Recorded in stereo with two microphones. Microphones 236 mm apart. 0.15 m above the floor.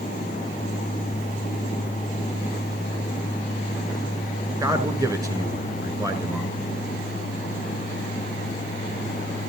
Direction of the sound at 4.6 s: 15° right (ahead or behind).